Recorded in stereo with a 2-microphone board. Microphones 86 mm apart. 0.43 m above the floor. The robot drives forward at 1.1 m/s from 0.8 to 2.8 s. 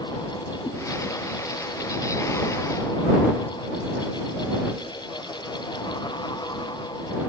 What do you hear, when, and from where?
0.6 s a cat meowing: 80° left, 2.5 m